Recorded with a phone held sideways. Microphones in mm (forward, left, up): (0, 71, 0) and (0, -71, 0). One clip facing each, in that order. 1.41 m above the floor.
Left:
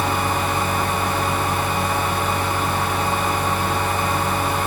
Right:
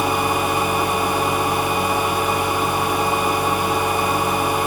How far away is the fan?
About 0.9 m.